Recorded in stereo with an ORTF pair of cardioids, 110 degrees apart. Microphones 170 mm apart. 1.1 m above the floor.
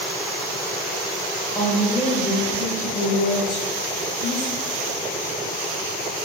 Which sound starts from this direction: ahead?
A woman speaking, at 1.6 s.